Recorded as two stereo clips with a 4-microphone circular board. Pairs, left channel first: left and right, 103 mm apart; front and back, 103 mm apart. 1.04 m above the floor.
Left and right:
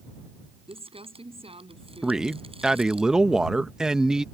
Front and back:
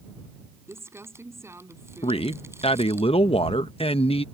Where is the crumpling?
115° right.